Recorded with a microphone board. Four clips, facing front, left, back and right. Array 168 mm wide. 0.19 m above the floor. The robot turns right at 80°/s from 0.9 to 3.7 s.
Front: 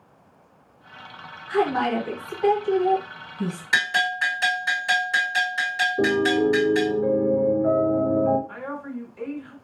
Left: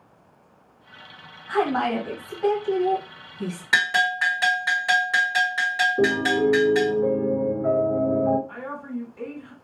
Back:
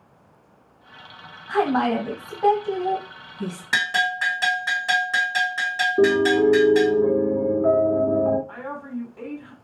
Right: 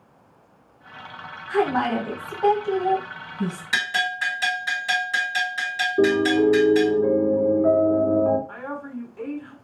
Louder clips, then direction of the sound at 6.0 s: Right 5 dB, back 4 dB; 165° right.